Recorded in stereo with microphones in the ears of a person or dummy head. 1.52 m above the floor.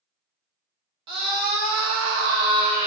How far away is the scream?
About 0.8 m.